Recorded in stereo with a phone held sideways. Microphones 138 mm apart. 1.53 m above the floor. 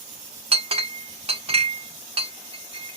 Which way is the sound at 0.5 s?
45° right (ahead or behind).